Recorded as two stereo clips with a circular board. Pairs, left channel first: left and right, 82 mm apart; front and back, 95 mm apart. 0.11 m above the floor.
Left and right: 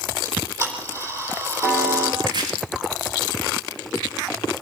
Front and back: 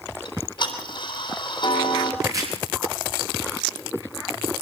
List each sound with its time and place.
0.2 s ticking: 35° right, 3.5 m
2.2 s chopping: 125° right, 6.5 m